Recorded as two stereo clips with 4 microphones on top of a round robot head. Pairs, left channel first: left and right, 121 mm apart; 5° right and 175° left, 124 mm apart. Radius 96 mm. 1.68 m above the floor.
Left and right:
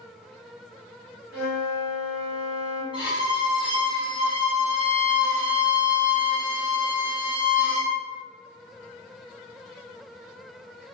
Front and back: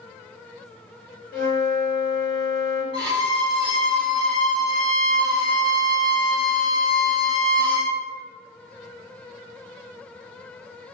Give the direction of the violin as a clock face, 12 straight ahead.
2 o'clock.